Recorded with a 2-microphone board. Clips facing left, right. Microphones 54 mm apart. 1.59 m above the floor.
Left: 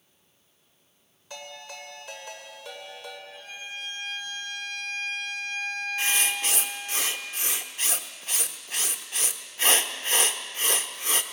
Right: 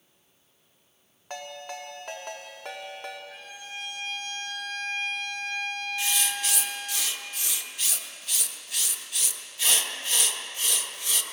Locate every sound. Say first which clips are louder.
1.3 s a ringtone: right 4 dB; 50° right (ahead or behind), 2.5 m
3.3 s a violin: left 1 dB; 65° right (ahead or behind), 8 m
6.0 s writing: left 4 dB; 35° left (ahead or behind), 1.0 m